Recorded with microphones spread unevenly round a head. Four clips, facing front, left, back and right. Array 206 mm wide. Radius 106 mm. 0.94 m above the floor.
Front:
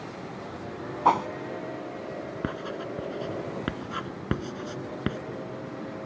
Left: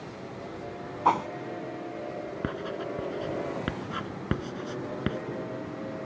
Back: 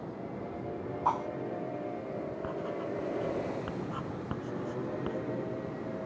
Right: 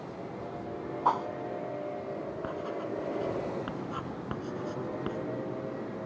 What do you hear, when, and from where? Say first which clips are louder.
1.1 s a whoosh: left 4 dB, front 8 dB; straight ahead
2.4 s writing: left 3 dB, front 3 dB; 25° left